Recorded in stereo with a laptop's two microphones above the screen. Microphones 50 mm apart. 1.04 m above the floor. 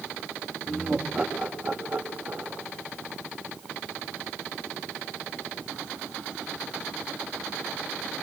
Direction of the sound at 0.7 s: 10° right (ahead or behind).